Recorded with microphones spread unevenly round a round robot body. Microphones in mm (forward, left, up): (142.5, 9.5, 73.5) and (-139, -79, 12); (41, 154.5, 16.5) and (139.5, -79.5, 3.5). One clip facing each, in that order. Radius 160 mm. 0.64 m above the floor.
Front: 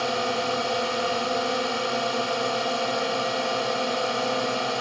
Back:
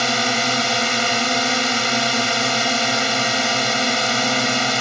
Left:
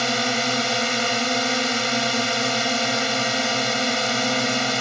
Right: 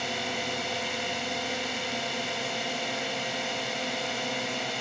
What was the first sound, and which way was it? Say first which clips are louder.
A drone: back 3 dB, left 9 dB; 150° left.